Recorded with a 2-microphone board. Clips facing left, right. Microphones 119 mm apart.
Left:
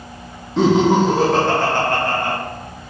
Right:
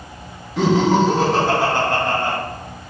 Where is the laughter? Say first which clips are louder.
Left 2 dB; 30° left (ahead or behind), 1.5 m; by 2.4 s 30° right (ahead or behind), 1.7 m.